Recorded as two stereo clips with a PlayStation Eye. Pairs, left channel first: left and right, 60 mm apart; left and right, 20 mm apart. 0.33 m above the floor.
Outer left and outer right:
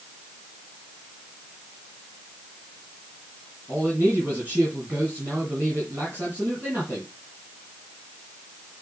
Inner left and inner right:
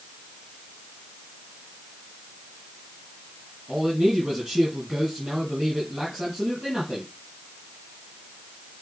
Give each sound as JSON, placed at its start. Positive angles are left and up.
{"t": 3.7, "sound": "a man speaking", "side_deg": -35, "distance_m": 3.5}